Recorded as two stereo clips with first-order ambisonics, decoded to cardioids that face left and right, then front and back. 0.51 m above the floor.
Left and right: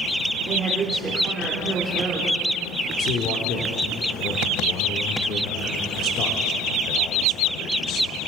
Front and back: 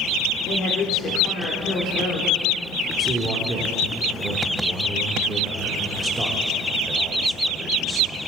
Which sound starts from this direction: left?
A man speaking, at 3.0 s.